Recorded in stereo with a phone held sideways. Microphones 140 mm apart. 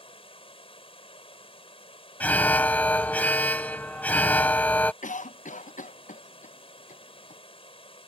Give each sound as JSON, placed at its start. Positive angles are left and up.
{"t": 0.0, "sound": "running water", "side_deg": 45}
{"t": 2.2, "sound": "an alarm", "side_deg": 10}
{"t": 5.0, "sound": "a cough", "side_deg": 75}